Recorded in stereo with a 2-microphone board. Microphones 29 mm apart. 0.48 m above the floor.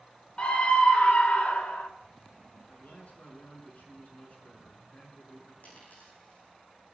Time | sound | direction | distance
0.4 | a scream | 35° left (ahead or behind) | 1.6 m
2.7 | a man speaking | 55° left (ahead or behind) | 7 m
5.6 | a dropped coin | 60° left (ahead or behind) | 6 m